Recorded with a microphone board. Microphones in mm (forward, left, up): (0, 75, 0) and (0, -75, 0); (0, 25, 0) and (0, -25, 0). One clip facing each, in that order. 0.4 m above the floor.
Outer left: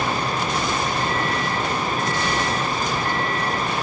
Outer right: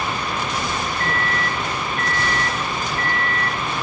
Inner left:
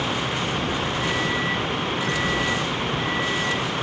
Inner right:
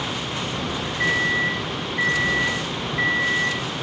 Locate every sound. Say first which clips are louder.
1.0 s a microwave: outer left 1 dB, inner right 7 dB; 65° right (ahead or behind), 4.5 m